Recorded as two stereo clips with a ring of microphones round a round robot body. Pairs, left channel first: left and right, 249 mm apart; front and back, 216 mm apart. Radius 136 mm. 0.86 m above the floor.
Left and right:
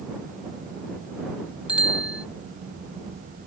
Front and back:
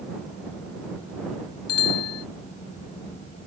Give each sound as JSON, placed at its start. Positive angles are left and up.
{"t": 1.7, "sound": "a bicycle bell", "azimuth_deg": -5}